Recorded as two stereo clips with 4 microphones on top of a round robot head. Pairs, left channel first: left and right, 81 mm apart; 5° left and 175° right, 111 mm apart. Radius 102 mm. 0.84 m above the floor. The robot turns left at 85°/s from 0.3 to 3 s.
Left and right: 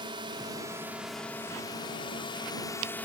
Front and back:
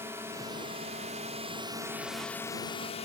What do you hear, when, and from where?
0.0 s a drone: 110° right; by 3.1 s 20° left